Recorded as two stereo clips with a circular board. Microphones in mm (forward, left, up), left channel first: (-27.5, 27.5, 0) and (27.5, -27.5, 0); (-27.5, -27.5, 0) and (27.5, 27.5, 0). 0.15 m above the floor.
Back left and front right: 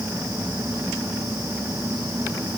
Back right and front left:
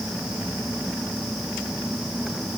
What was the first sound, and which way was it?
Only background noise.